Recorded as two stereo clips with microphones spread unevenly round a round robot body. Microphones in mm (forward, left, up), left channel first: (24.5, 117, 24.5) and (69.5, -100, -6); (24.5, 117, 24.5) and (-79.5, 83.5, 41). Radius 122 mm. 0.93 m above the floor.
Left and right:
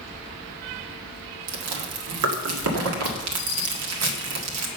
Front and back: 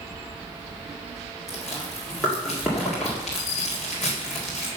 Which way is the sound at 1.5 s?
70° right.